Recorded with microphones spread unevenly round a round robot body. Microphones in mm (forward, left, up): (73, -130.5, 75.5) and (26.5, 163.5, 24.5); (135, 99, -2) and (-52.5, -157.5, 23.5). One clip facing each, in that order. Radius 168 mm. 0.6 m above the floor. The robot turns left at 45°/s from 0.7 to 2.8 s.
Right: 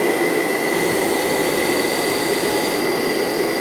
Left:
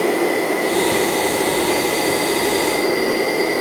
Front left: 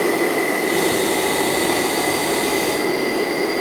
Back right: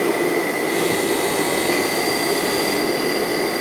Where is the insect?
25° right, 3.5 m; by 3.6 s 120° right, 3.5 m.